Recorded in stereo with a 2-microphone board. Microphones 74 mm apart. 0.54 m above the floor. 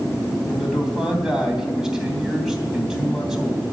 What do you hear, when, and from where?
0.5 s a man speaking: 5° right (ahead or behind), 3 m